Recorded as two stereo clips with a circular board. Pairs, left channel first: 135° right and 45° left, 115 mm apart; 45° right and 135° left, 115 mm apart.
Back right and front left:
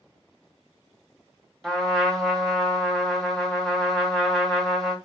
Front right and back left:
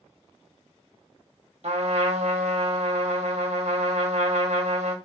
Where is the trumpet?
140° left, 1.0 m.